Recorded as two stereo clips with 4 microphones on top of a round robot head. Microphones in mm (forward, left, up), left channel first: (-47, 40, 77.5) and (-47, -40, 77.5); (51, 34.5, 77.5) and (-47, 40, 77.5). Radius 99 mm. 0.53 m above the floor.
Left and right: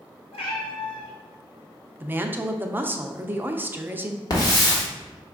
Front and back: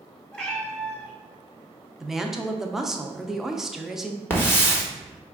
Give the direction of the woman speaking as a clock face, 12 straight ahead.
3 o'clock.